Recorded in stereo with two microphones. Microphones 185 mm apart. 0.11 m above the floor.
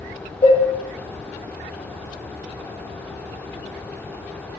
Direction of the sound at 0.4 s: 40° left (ahead or behind).